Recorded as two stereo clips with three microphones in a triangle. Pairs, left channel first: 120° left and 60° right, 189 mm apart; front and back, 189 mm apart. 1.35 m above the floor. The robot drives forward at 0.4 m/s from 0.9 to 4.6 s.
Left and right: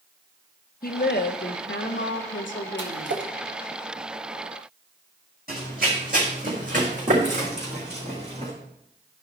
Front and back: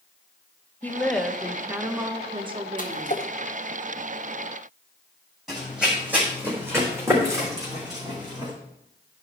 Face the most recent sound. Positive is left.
turn(degrees=-115)